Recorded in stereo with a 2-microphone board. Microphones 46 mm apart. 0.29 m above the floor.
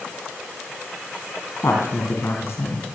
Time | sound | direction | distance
1.6 | a woman speaking | 65° left (ahead or behind) | 2 m